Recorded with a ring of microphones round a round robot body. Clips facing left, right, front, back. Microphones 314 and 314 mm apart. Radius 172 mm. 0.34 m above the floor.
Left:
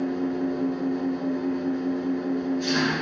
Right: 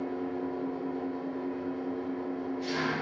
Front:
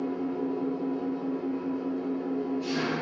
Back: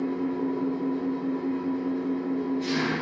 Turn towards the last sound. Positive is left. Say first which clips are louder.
# left 8 dB, back 3 dB
turn(degrees=110)